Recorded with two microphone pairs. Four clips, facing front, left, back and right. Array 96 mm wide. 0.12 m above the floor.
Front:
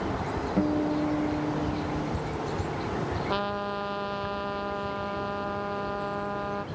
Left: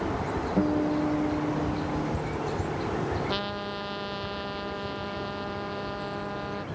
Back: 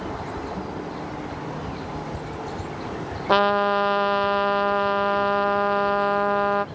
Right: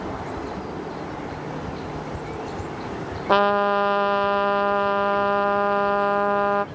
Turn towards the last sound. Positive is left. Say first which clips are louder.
# right 14 dB, back 16 dB
turn(degrees=-130)